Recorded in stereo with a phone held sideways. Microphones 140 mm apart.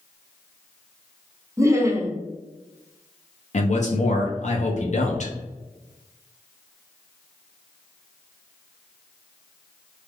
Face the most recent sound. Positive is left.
turn(degrees=55)  # may be behind; listen again after turning